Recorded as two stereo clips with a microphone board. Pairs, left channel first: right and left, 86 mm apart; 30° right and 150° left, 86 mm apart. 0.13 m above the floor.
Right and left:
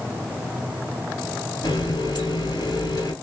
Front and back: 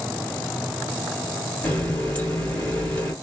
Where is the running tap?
100° right, 1.5 m.